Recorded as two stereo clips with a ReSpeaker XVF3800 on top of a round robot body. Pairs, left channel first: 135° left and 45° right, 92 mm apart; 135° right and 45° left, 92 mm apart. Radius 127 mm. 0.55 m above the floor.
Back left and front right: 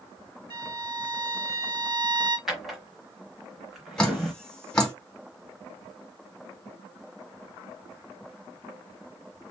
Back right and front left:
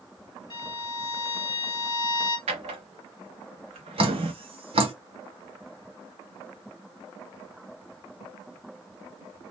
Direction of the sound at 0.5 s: 90° right.